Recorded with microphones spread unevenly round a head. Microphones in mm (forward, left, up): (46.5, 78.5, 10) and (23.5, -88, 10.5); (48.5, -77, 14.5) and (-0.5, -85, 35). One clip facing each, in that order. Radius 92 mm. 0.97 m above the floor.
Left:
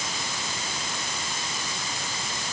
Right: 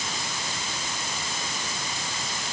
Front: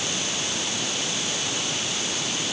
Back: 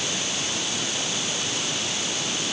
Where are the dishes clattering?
No dishes clattering in this recording.